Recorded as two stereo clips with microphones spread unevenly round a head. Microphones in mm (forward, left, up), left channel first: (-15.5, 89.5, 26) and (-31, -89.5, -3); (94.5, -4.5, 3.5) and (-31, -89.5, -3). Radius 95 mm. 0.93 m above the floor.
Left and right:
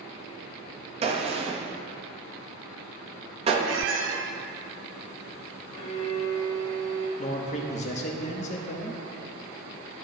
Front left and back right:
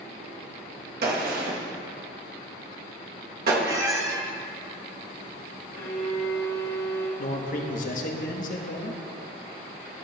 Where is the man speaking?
30° left, 0.9 m.